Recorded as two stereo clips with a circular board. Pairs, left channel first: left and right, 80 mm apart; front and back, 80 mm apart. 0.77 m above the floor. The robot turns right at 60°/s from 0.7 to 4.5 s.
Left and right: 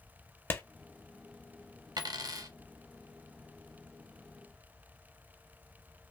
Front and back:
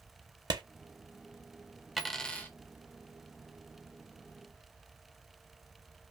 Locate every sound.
0.5 s a clap: 150° left, 0.8 m
2.0 s a dropped coin: 95° right, 0.9 m; by 2.5 s 60° right, 0.9 m